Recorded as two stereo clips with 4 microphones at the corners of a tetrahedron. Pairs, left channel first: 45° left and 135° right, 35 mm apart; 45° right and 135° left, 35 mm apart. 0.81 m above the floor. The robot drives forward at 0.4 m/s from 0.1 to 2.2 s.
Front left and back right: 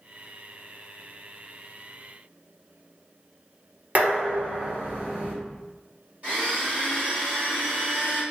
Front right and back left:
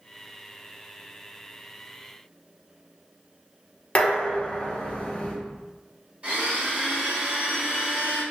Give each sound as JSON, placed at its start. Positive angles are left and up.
{"t": 4.0, "sound": "dishes clattering", "azimuth_deg": -95, "distance_m": 0.8}
{"t": 6.2, "sound": "a blender", "azimuth_deg": -175, "distance_m": 1.8}